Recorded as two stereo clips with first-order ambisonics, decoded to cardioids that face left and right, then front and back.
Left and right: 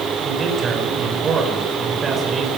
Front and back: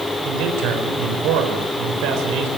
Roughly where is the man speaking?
Behind right.